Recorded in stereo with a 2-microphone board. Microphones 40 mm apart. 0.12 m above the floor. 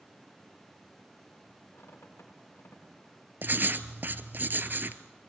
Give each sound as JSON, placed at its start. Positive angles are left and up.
{"t": 1.7, "sound": "a squeak", "side_deg": 70, "distance_m": 9.5}
{"t": 3.4, "sound": "writing", "side_deg": -50, "distance_m": 1.0}